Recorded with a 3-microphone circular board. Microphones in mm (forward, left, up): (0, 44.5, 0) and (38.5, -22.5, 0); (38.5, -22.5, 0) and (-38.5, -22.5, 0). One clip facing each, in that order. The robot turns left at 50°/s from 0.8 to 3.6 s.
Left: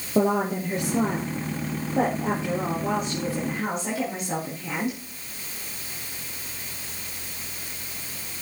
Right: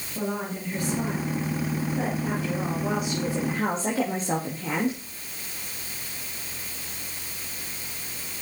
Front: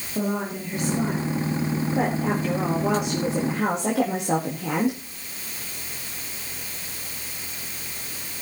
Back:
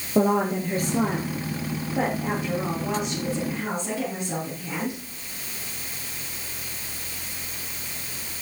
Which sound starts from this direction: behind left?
A woman speaking, at 0.1 s.